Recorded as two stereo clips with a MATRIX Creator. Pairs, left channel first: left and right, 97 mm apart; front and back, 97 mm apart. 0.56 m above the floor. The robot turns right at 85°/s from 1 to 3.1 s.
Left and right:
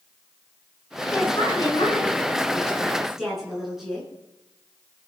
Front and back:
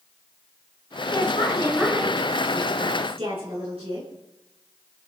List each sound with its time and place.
1.1 s a woman speaking: 15° left, 8 m; by 4.1 s straight behind, 8 m